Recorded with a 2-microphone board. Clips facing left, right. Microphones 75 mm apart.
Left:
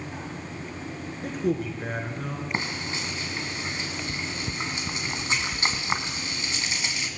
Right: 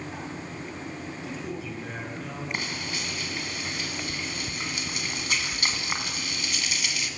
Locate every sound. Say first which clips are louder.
1.2 s a man speaking: left 11 dB; 55° left (ahead or behind), 6 m; by 2.4 s 45° left (ahead or behind), 5.5 m
2.5 s frying: left 3 dB; 25° left (ahead or behind), 2.5 m